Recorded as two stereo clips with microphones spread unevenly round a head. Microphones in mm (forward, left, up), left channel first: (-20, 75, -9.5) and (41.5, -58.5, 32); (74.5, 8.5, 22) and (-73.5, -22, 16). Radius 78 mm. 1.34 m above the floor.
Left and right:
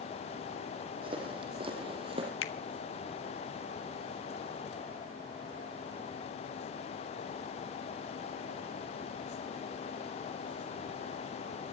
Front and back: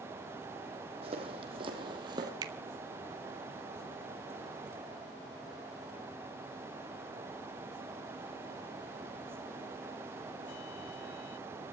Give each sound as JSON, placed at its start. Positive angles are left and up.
{"t": 1.0, "sound": "footsteps", "azimuth_deg": -115, "distance_m": 4.0}
{"t": 2.4, "sound": "a finger snap", "azimuth_deg": 125, "distance_m": 1.4}